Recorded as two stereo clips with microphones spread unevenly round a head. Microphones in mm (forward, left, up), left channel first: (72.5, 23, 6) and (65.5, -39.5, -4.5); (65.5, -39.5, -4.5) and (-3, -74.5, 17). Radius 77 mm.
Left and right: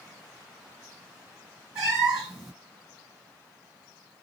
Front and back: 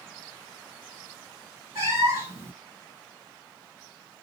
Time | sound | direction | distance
1.8 | a cat meowing | 160° right | 1.4 m